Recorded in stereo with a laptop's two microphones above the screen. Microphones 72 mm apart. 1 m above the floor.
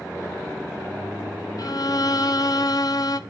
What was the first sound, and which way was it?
A violin, 60° left (ahead or behind).